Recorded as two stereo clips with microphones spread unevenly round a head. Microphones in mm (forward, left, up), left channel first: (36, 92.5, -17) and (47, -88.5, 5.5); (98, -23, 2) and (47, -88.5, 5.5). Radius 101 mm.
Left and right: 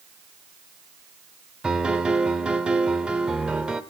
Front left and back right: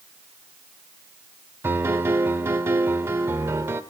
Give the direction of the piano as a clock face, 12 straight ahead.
5 o'clock.